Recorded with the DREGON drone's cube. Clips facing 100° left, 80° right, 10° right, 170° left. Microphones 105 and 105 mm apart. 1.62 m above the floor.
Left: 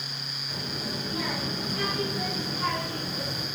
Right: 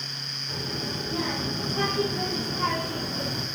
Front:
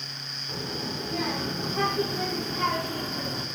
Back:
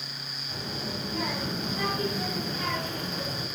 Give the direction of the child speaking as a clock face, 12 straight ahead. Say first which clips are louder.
Right 2 dB, front 2 dB; 1 o'clock.